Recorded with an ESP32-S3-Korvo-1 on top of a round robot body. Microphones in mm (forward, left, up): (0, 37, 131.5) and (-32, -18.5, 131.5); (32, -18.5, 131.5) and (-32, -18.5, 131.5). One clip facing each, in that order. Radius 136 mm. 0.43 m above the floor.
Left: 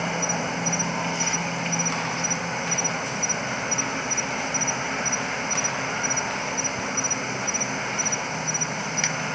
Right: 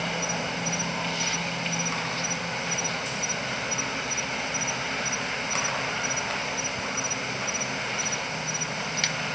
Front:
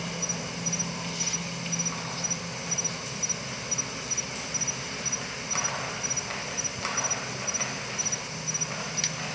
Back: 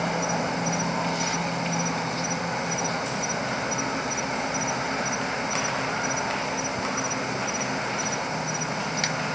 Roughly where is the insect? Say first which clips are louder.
Left 3 dB, back 10 dB; behind left.